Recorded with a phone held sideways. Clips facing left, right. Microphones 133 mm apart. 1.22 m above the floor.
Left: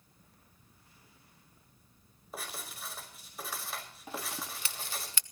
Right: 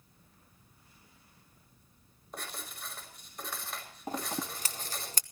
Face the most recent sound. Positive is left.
turn(degrees=-40)  # may be behind; listen again after turning